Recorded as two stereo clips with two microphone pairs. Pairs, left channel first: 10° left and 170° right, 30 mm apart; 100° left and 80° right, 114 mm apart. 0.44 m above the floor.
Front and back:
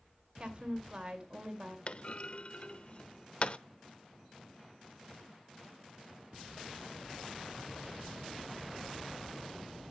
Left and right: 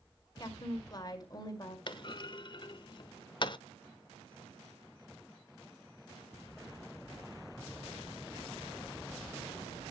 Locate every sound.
0.4 s a woman speaking: 145° left, 2 m
1.9 s a clunk: 50° left, 0.5 m